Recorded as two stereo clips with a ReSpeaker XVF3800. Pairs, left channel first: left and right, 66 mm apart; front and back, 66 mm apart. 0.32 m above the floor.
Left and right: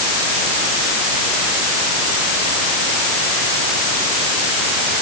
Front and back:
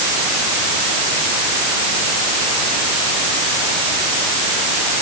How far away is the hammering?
No hammering in this recording.